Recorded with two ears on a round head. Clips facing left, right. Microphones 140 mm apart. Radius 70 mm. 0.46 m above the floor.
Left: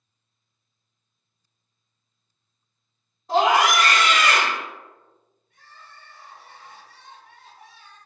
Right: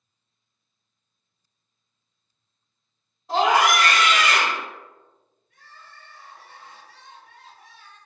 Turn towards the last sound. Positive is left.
turn(degrees=25)  # may be behind; listen again after turning